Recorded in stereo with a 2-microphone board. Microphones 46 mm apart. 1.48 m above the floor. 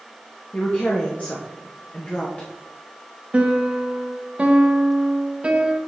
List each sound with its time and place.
0.5 s a woman speaking: 30° left (ahead or behind), 1.1 m
3.3 s a piano: 20° right (ahead or behind), 0.9 m